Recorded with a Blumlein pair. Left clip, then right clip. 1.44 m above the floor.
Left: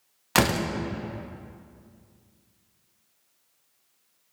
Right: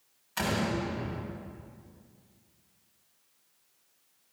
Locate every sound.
0.3 s a door slam: 45° left, 1.4 m